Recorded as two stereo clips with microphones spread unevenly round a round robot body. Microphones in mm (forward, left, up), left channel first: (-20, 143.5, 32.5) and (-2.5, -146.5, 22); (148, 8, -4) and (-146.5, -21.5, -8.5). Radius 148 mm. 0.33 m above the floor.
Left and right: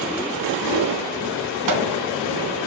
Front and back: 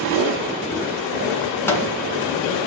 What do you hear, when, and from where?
1.7 s a microwave: 75° right, 2.5 m